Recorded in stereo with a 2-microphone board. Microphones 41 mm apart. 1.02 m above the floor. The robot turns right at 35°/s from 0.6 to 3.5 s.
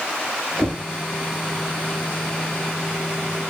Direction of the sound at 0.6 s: 10° left (ahead or behind).